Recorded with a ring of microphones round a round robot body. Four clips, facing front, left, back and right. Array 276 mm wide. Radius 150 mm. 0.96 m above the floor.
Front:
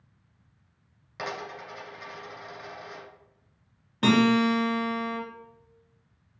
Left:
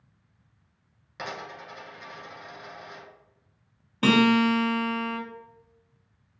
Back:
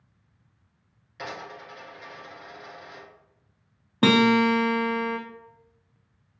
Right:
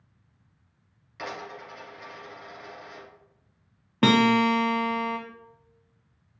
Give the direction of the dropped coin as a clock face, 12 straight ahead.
11 o'clock.